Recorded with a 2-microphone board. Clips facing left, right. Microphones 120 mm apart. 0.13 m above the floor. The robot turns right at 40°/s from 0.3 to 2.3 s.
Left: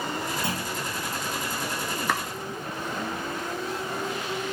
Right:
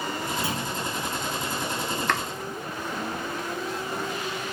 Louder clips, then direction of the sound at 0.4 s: Right 1 dB; 5° right (ahead or behind).